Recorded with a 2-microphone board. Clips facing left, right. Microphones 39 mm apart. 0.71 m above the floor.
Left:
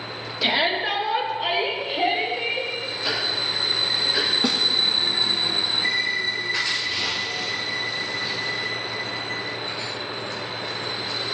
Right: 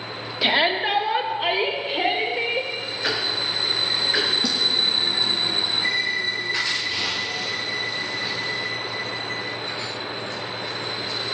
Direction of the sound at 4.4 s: 40° left (ahead or behind).